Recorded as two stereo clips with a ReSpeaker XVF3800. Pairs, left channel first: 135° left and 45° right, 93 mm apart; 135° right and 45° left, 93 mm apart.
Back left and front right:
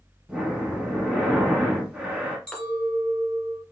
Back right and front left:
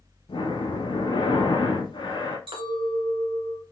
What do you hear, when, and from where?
0.3 s breathing: 125° right, 1.1 m
2.5 s a clink: 55° left, 1.4 m